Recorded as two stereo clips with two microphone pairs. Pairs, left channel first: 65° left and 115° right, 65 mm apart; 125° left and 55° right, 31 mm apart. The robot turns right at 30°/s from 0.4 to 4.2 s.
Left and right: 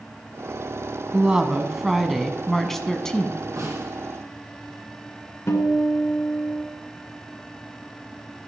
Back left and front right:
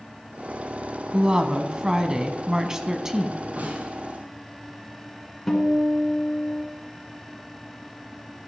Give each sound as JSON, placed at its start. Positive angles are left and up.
{"t": 1.1, "sound": "a woman speaking", "azimuth_deg": -60, "distance_m": 1.0}
{"t": 3.6, "sound": "a snare drum", "azimuth_deg": -85, "distance_m": 5.0}
{"t": 5.5, "sound": "a guitar", "azimuth_deg": 50, "distance_m": 1.9}